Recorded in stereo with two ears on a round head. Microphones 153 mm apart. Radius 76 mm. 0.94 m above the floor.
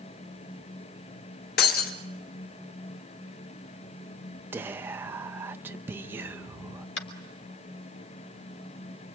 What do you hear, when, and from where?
1.6 s breaking glass: 65° left (ahead or behind), 2.5 m
4.5 s whispering: 15° right (ahead or behind), 0.9 m
7.0 s tapping: 80° left, 3 m